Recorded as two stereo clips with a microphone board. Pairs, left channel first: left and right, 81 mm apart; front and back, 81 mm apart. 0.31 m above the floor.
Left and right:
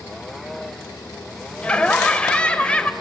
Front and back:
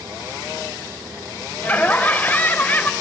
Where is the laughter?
35° left, 0.9 m.